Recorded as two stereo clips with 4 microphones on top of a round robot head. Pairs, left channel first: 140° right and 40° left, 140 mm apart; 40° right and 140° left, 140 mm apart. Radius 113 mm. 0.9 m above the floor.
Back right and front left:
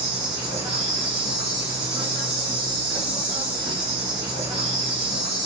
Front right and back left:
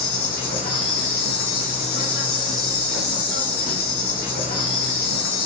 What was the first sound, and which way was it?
An insect, 20° right.